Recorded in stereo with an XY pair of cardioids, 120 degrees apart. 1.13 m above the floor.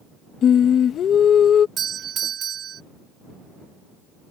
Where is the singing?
50° left.